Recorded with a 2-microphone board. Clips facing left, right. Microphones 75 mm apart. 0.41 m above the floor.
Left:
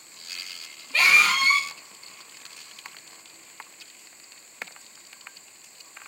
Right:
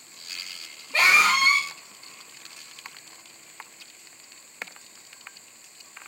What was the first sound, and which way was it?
A scream, 25° right (ahead or behind).